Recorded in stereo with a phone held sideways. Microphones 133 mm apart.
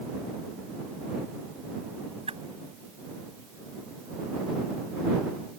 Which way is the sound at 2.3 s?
50° right (ahead or behind).